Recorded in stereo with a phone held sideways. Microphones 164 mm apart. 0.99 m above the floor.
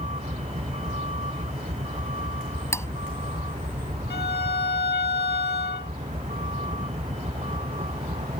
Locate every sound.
0.0 s a vehicle: 40° right (ahead or behind)
2.7 s cutlery clinking: 15° left (ahead or behind)
4.1 s a violin: 75° left (ahead or behind)